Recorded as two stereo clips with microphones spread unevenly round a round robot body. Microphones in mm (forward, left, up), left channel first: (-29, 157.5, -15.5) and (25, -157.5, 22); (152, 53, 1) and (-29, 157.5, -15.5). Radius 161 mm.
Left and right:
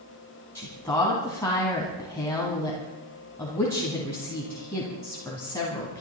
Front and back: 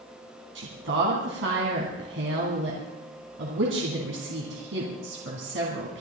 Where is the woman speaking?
Straight behind, 2.5 m.